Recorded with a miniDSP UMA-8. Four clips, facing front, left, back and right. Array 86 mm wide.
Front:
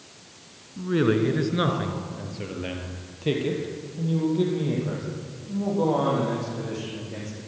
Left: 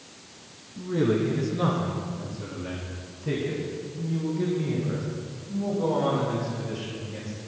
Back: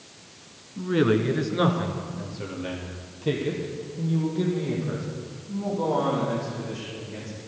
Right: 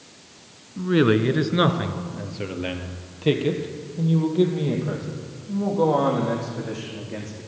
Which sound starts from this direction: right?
A man speaking, at 0.8 s.